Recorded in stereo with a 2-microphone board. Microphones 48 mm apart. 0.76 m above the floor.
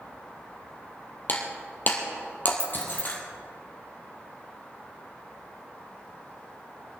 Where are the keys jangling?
70° left (ahead or behind), 0.5 m.